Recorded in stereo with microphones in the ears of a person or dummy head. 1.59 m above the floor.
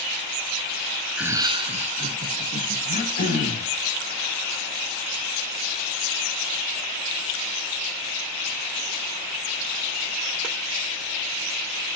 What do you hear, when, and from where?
1.2 s laughter: 5° right (ahead or behind), 0.6 m; by 2.8 s 55° right (ahead or behind), 2.5 m
2.9 s throat clearing: 45° left (ahead or behind), 4 m